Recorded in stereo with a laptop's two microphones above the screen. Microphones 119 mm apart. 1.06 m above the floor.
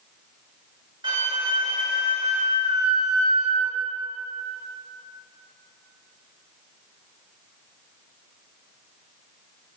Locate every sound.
1.0 s a flute: 40° right (ahead or behind), 1.2 m